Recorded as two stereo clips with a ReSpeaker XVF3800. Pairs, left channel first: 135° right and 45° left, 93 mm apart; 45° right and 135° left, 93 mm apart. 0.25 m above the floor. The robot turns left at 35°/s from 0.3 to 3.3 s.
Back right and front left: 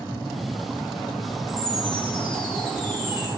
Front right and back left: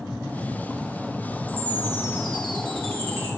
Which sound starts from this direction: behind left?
A chime, at 1.5 s.